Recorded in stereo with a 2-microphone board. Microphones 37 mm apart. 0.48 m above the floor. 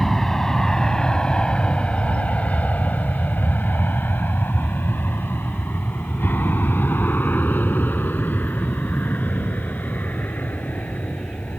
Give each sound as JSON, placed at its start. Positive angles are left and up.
{"t": 0.0, "sound": "an aircraft", "side_deg": 10}